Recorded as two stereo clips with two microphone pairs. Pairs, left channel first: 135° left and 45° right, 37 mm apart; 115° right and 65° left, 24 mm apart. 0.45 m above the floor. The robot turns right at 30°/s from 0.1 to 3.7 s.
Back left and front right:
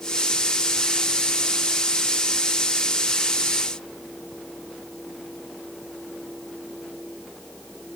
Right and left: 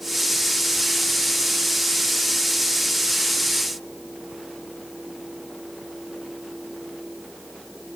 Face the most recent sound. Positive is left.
No sound to turn to.